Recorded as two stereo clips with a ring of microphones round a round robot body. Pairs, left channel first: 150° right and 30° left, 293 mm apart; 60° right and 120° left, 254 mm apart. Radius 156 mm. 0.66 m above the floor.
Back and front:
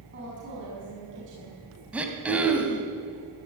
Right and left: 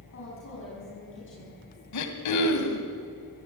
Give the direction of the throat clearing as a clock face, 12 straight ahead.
2 o'clock.